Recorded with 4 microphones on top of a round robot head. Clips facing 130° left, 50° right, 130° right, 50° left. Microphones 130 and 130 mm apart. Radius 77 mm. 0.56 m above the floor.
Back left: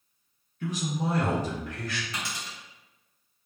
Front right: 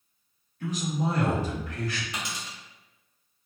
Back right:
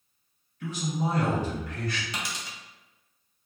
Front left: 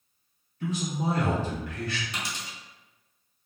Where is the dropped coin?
125° right, 0.7 m.